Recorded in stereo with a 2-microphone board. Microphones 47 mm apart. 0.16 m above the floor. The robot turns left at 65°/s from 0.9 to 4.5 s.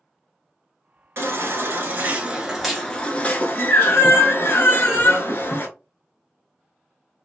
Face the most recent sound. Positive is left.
turn(degrees=60)